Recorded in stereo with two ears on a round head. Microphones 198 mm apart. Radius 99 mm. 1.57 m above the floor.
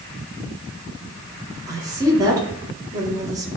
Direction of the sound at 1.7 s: 15° right (ahead or behind).